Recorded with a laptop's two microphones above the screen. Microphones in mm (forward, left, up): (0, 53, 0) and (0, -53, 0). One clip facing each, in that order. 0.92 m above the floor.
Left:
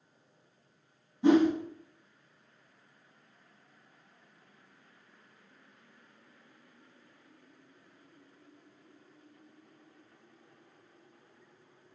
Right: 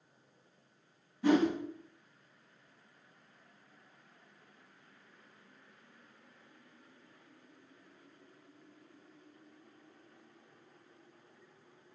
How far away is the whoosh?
About 0.6 m.